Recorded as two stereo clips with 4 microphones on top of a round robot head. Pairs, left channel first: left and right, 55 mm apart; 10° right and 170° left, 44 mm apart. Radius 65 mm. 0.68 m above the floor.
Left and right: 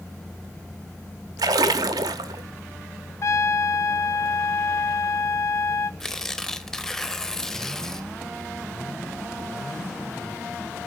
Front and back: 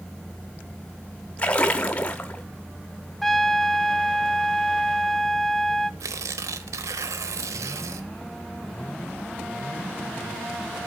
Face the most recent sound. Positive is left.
turn(degrees=170)